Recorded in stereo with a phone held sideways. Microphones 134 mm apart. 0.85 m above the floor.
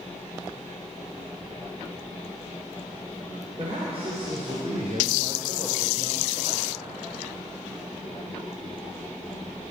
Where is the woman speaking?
45° right (ahead or behind), 4 m.